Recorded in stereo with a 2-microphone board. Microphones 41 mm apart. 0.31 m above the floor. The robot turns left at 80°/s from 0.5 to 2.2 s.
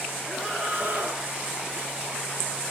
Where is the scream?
5° right, 4.5 m; by 1.2 s 65° right, 4.5 m.